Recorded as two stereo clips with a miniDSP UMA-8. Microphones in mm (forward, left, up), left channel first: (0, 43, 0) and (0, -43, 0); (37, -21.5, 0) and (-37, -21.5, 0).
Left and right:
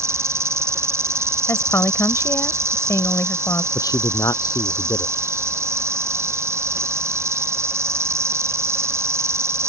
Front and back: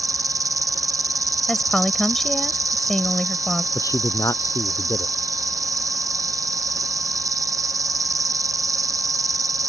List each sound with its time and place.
0.0 s an insect: 145° right
1.5 s a woman speaking: 75° left
3.8 s a man speaking: 45° left